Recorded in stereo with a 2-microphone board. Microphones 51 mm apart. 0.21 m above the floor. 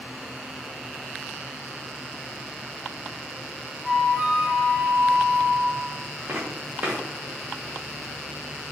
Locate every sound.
3.8 s a flute: 25° right (ahead or behind), 2.0 m
6.3 s footsteps: 45° right (ahead or behind), 1.3 m